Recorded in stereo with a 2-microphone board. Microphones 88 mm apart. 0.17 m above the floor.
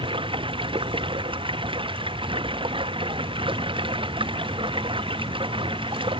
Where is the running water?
80° right.